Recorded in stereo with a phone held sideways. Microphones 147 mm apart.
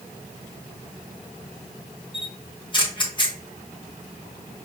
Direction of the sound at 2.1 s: 30° left (ahead or behind).